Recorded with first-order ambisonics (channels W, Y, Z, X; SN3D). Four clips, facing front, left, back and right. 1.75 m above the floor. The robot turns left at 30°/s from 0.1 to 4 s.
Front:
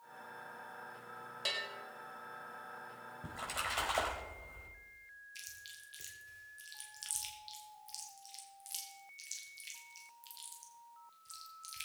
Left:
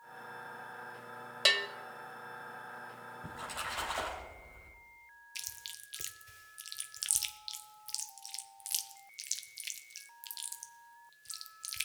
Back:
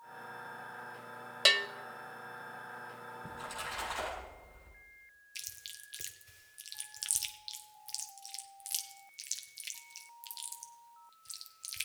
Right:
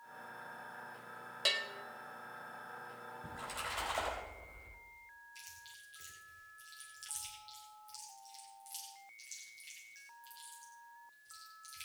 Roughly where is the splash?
Ahead.